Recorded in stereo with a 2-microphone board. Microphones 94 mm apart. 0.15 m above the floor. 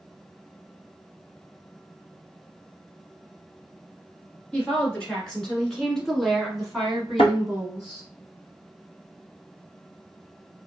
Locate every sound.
4.5 s a woman speaking: 10° left (ahead or behind), 1.8 m; by 8.1 s 10° right (ahead or behind), 1.0 m
7.2 s a thud: 80° left, 0.9 m